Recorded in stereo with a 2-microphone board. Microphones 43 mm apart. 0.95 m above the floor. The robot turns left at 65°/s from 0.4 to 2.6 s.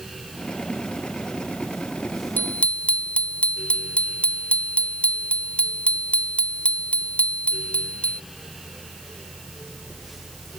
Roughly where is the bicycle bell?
Left.